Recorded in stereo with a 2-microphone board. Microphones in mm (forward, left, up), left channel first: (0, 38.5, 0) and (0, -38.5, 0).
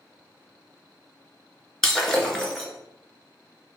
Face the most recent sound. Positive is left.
turn(degrees=5)  # may be behind; listen again after turning